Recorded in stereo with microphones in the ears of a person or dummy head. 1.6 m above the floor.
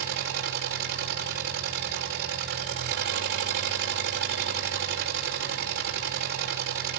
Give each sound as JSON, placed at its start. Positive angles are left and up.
{"t": 0.0, "sound": "an engine running", "side_deg": -50, "distance_m": 5.0}